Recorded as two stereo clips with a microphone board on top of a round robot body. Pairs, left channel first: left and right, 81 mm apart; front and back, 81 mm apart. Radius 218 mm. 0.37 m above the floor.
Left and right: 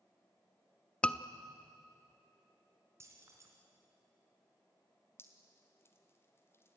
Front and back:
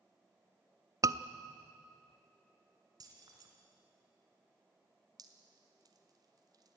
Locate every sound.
1.0 s a scream: 165° left, 1.0 m
3.0 s keys jangling: 145° right, 3.5 m
5.2 s dripping: 150° left, 2 m